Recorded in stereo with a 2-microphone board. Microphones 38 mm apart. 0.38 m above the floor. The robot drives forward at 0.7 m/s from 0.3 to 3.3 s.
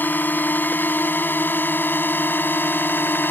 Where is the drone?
55° left (ahead or behind); by 3.3 s 65° left (ahead or behind).